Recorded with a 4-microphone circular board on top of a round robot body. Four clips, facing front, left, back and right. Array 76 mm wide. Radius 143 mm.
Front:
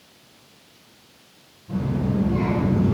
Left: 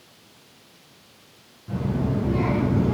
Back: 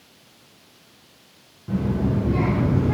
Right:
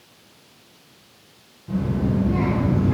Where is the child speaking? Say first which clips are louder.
Right 2 dB, back 1 dB; 175° left, 6 m; by 2.9 s 170° left, 6.5 m.